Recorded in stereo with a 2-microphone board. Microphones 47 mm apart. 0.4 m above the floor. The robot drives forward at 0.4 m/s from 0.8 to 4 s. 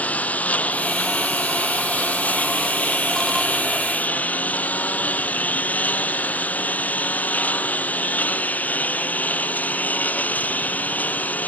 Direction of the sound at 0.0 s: 30° left (ahead or behind).